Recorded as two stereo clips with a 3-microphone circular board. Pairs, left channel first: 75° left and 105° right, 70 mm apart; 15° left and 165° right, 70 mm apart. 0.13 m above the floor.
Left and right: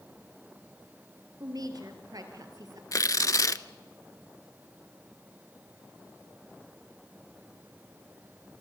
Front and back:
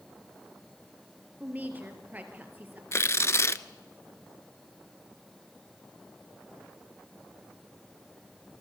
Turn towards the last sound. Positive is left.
turn(degrees=55)